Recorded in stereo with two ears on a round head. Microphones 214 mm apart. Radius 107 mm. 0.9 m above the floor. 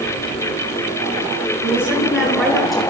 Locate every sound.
1.6 s a woman speaking: 5° right (ahead or behind), 9.5 m; by 2.8 s centre (ahead or behind), 11 m